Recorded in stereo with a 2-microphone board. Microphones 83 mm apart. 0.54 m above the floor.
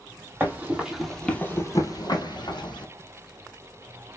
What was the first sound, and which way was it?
Running footsteps, 25° right (ahead or behind).